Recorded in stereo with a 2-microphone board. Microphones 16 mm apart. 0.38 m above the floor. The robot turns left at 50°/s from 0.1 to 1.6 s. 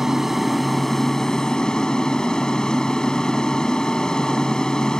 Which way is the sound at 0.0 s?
155° right.